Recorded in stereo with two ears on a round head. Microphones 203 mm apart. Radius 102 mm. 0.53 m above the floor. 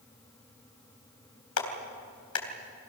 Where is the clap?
70° left (ahead or behind), 3.5 m.